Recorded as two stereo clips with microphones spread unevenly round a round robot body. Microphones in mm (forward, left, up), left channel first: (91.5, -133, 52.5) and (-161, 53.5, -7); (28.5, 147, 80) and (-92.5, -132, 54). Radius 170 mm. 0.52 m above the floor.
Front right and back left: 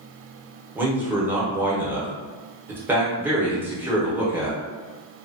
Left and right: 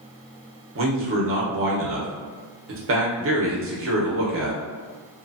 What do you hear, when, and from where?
0.8 s a man speaking: 140° right, 1.1 m